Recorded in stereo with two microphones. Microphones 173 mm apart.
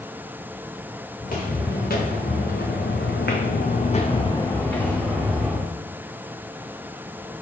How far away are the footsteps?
About 1.8 m.